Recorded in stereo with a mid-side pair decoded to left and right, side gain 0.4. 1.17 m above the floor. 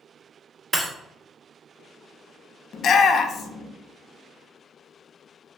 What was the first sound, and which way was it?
Breaking glass, 25° right.